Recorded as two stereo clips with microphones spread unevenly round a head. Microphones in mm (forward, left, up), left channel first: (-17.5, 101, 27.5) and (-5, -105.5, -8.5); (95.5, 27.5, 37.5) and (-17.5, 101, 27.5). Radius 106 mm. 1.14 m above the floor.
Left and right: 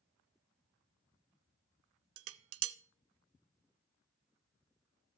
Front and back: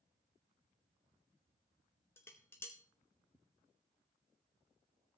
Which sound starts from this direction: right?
Dishes clattering, at 2.2 s.